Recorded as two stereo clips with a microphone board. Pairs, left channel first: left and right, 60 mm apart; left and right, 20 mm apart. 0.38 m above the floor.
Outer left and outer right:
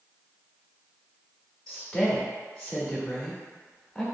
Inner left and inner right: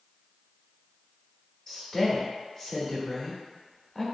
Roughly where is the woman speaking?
Centre.